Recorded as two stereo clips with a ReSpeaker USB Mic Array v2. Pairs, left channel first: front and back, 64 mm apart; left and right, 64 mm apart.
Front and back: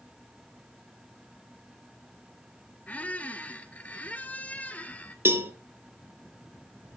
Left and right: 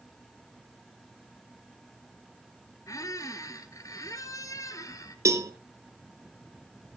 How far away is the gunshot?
No gunshot in this recording.